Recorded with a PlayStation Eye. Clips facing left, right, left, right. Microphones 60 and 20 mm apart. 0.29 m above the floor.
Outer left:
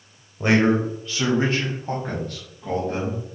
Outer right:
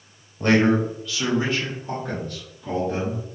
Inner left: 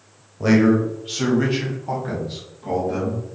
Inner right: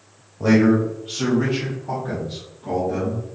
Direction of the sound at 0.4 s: 10° left (ahead or behind).